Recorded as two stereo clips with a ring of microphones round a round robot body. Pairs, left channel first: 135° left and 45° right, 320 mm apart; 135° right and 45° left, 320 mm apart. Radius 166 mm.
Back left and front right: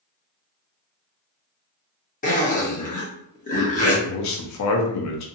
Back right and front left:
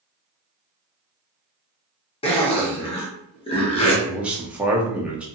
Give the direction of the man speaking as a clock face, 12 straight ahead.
8 o'clock.